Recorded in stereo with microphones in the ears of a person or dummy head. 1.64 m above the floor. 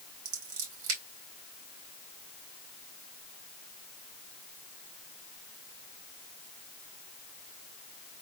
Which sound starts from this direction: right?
Scissors, at 0.2 s.